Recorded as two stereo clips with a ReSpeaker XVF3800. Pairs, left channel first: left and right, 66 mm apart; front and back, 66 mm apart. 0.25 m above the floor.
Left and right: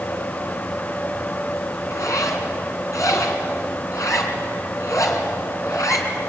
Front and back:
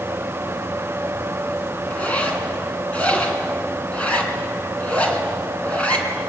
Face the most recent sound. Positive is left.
turn(degrees=65)